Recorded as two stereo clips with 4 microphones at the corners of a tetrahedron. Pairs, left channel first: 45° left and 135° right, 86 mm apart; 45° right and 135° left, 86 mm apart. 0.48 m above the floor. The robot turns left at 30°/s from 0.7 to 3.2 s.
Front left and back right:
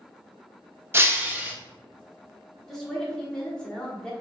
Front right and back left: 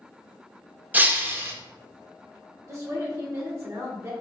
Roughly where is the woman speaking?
Behind left.